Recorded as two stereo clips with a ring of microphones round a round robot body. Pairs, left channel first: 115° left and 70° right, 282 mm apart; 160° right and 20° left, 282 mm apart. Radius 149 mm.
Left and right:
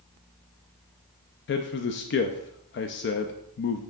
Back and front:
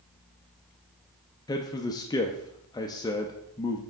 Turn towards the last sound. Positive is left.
turn(degrees=130)